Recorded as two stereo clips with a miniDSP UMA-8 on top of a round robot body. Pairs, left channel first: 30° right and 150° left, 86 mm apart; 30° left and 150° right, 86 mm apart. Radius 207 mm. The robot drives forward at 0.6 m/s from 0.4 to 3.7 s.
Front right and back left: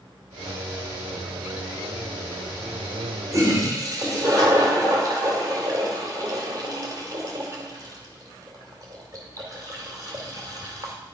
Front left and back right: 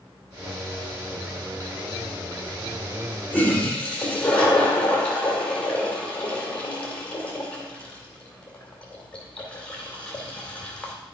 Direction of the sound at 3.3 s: 100° left.